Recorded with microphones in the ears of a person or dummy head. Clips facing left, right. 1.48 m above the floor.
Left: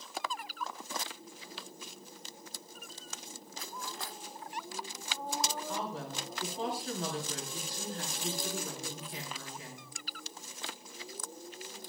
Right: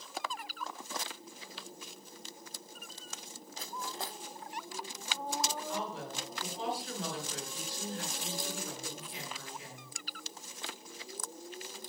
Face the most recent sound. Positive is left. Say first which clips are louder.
# even
turn(degrees=40)  # may be behind; listen again after turning